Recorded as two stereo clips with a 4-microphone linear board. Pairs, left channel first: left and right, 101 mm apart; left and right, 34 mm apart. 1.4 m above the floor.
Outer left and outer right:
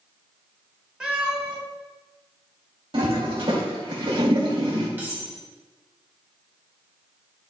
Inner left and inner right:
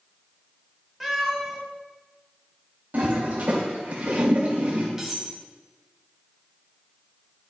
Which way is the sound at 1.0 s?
10° right (ahead or behind).